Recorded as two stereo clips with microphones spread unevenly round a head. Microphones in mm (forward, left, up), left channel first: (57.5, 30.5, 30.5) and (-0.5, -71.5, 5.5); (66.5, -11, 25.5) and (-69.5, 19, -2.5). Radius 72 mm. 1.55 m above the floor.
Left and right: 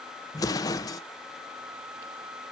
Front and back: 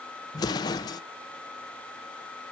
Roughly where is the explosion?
Ahead left.